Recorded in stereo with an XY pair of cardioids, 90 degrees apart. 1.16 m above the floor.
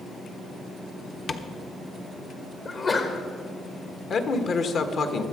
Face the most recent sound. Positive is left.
turn(degrees=60)